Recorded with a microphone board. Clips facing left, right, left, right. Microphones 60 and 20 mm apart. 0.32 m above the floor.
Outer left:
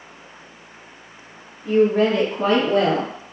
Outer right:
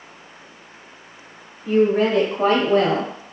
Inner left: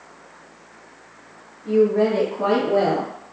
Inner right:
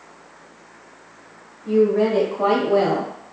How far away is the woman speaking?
About 0.9 m.